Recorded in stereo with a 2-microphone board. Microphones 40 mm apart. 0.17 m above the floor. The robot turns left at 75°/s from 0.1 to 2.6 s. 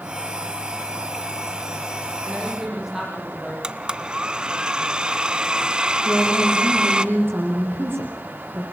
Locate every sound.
2.2 s a woman speaking: 35° right (ahead or behind), 9.5 m; by 3.5 s 10° right (ahead or behind), 9.5 m
3.6 s a blender: 25° right (ahead or behind), 0.8 m
6.0 s a woman speaking: 75° right (ahead or behind), 7.5 m